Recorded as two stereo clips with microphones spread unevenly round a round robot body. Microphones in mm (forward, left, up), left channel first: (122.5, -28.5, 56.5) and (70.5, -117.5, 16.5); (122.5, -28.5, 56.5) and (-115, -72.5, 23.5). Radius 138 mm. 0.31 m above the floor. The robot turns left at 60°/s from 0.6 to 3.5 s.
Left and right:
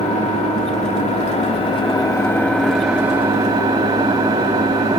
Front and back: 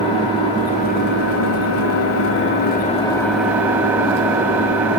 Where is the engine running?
85° left, 1.4 m; by 5.0 s 90° right, 1.4 m.